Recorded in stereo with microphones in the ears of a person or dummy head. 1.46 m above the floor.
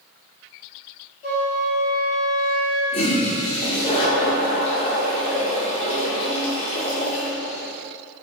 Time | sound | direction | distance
1.2 | a flute | 45° left (ahead or behind) | 1.7 m
2.9 | a toilet flushing | 35° left (ahead or behind) | 1.0 m